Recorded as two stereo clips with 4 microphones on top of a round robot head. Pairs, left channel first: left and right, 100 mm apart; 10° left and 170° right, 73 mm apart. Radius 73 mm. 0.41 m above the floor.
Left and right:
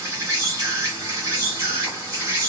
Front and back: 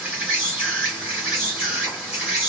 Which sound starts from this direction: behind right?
An insect, at 0.0 s.